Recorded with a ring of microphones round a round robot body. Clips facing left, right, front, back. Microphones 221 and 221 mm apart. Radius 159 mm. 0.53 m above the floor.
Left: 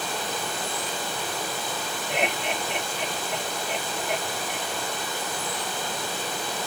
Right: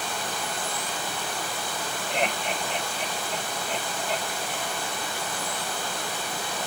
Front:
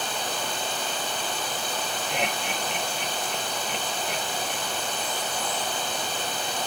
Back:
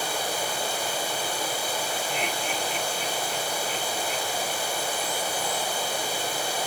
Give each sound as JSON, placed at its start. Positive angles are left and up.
{"t": 0.0, "sound": "running water", "azimuth_deg": 100, "distance_m": 1.9}
{"t": 2.1, "sound": "laughter", "azimuth_deg": 20, "distance_m": 2.5}